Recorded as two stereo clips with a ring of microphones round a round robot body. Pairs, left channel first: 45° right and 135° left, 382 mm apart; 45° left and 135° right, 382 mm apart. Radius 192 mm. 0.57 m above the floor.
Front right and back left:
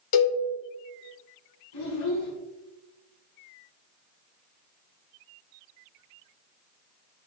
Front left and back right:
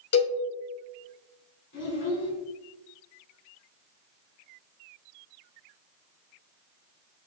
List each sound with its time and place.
0.1 s a cowbell: 10° right, 2.0 m
1.7 s a child speaking: 15° right, 3.5 m